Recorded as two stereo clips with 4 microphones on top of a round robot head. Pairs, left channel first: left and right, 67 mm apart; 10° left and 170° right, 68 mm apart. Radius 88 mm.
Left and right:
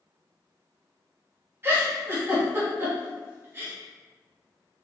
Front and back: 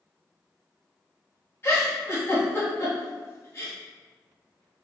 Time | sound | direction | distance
1.6 | a giggle | 40° right | 1.4 m